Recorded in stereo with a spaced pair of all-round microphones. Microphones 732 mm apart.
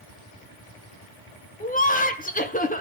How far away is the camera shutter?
No camera shutter in this recording.